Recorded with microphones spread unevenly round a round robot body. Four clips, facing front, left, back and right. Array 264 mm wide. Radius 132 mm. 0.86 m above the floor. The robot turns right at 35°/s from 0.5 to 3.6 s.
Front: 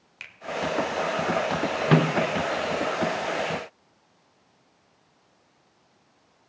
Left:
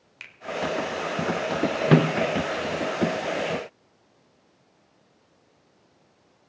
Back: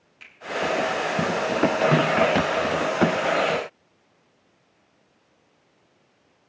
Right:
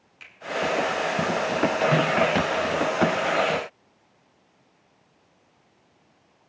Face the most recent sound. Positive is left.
turn(degrees=145)